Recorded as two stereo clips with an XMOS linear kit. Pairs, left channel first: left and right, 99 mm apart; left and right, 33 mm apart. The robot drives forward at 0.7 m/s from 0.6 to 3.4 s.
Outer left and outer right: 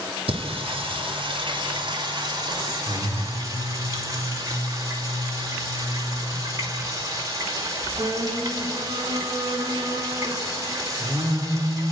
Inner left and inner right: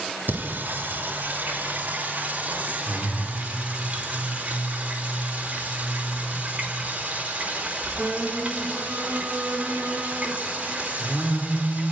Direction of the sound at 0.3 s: 70° right (ahead or behind).